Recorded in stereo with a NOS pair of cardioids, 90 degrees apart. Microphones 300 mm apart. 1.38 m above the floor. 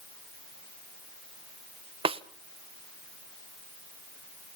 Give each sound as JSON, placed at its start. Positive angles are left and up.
{"t": 2.0, "sound": "a snare drum", "azimuth_deg": -20, "distance_m": 1.0}